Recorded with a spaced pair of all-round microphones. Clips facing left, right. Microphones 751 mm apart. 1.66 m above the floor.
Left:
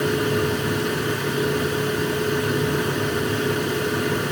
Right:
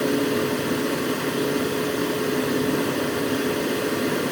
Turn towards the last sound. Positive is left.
turn(degrees=45)  # may be behind; listen again after turning